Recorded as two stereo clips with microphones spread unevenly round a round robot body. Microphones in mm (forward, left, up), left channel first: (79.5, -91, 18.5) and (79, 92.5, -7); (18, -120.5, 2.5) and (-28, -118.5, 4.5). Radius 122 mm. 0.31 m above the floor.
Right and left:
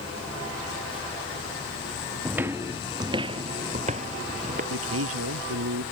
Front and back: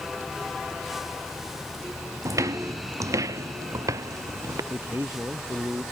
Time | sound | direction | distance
2.2 | footsteps | 175° left | ?
4.7 | a man speaking | 105° left | ?